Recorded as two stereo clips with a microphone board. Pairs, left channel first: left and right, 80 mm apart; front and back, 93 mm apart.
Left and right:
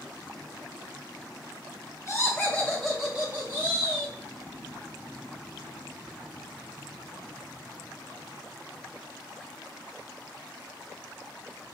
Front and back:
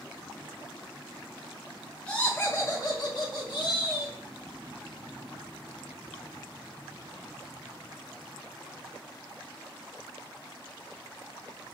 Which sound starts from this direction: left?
Laughter, at 2.1 s.